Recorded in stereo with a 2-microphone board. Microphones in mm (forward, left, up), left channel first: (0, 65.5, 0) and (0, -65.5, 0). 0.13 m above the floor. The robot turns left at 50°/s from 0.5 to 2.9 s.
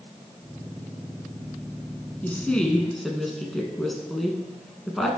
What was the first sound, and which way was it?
A woman speaking, 10° left (ahead or behind).